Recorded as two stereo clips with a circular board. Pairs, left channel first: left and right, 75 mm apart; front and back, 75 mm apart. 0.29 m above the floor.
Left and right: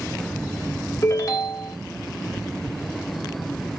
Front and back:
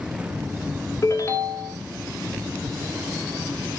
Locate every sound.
1.0 s a ringtone: 50° left, 1.2 m